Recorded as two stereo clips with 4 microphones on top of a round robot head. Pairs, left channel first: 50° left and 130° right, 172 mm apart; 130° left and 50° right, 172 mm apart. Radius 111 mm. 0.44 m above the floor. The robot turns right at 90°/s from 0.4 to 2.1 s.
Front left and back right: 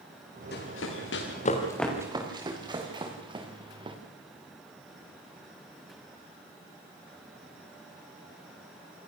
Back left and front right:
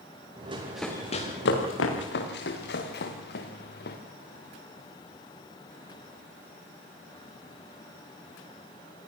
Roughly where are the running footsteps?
Ahead.